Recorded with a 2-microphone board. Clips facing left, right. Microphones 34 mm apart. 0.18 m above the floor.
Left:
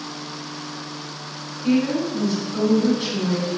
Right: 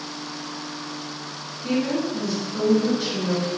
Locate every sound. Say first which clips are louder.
1.6 s a woman speaking: left 3 dB; 30° left (ahead or behind), 1.6 m